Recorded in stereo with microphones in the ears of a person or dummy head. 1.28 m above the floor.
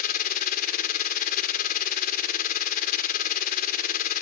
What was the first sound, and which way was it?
A machine running, 50° left (ahead or behind).